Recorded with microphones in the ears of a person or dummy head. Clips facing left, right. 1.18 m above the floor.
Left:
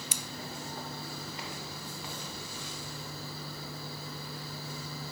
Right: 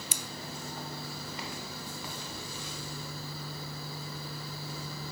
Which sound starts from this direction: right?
Scissors, at 0.1 s.